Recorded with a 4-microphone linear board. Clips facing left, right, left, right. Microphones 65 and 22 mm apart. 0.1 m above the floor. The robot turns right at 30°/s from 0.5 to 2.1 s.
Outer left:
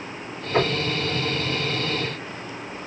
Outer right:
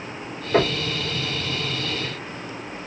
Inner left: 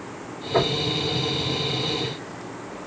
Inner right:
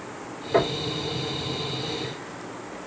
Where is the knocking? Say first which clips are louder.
Outer right 2 dB, inner left 1 dB; 55° right (ahead or behind), 2.5 m.